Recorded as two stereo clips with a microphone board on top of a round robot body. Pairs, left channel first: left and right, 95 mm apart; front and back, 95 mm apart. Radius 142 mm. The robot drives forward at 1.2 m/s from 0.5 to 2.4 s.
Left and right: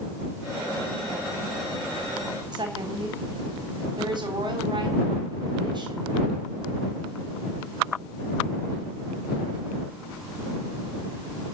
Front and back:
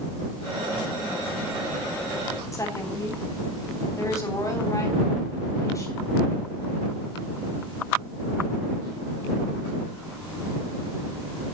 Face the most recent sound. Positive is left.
turn(degrees=-55)